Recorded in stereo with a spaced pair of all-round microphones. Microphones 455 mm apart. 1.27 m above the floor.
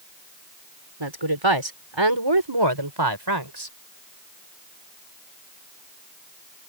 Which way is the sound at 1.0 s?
80° right.